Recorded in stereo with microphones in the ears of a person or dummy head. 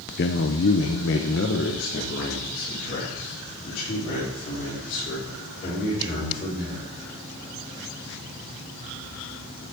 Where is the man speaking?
50° left (ahead or behind), 0.7 m; by 6.9 s 40° left (ahead or behind), 5.5 m.